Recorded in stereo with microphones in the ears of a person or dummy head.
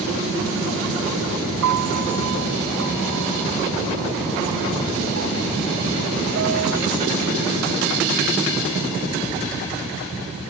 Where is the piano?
85° right.